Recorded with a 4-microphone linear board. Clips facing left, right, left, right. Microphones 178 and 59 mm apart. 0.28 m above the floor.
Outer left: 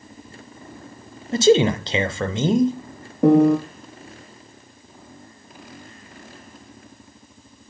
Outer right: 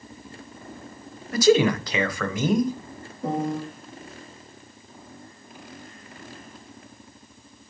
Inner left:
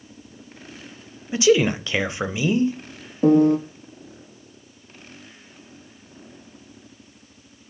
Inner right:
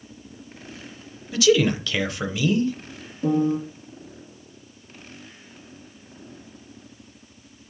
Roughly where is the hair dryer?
No hair dryer in this recording.